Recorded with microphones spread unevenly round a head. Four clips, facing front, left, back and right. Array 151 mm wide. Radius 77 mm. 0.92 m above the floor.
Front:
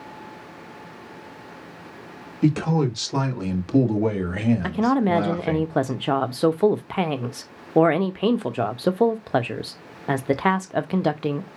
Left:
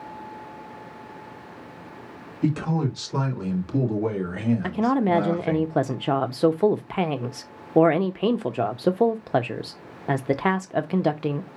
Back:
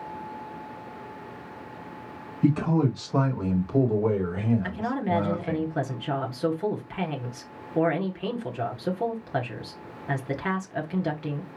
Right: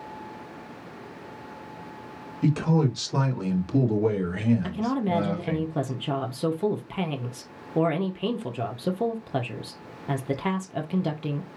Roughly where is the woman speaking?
Ahead left.